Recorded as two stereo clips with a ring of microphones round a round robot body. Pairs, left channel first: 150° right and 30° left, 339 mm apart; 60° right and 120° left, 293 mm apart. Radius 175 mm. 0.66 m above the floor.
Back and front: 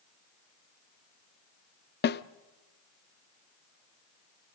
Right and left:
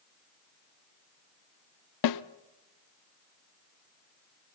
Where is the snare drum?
90° right, 0.5 m.